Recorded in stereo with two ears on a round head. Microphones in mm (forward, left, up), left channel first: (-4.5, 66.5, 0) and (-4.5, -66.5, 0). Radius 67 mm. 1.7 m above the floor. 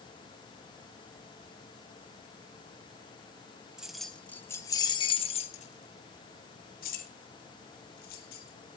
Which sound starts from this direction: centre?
Keys jangling, at 3.8 s.